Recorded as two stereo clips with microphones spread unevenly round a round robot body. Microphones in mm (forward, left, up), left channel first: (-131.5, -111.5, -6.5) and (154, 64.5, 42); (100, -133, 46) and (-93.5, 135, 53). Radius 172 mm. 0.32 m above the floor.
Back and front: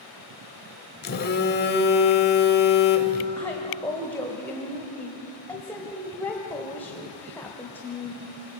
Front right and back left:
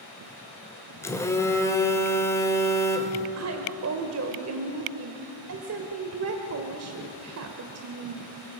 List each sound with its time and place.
1.0 s a phone buzzing: 130° right, 1.7 m
3.4 s a woman speaking: 135° left, 1.4 m